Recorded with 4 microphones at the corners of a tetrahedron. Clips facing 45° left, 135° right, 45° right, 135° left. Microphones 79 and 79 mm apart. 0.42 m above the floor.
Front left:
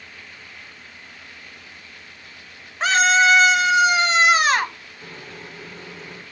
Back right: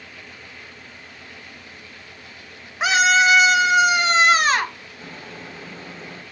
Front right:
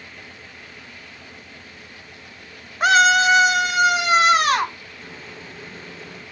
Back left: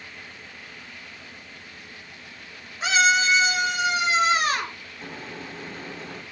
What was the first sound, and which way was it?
A scream, 55° right.